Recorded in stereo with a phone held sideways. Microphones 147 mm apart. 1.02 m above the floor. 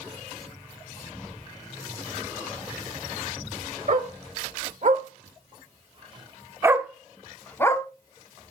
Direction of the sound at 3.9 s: 65° right (ahead or behind).